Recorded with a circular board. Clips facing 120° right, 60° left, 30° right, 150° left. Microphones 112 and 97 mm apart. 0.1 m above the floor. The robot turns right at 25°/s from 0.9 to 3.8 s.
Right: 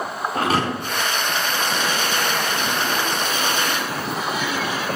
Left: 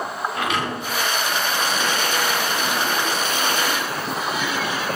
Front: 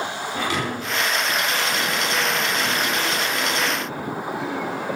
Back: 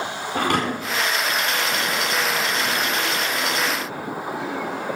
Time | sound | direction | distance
0.3 | a thud | 175° right | 6 m